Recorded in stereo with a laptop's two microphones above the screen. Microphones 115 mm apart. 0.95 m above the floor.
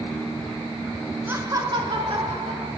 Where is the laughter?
15° right (ahead or behind), 0.9 m; by 2.7 s 60° right (ahead or behind), 1.9 m.